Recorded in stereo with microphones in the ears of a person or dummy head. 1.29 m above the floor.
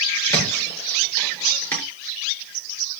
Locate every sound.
0.3 s a thud: 10° left (ahead or behind), 6 m